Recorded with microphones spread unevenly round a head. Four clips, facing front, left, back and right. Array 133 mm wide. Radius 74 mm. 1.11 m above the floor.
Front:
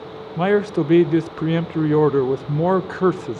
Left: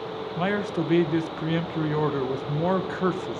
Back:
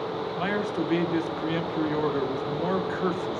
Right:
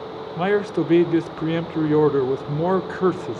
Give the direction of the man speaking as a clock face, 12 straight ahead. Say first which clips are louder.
Right 6 dB, front 12 dB; 1 o'clock.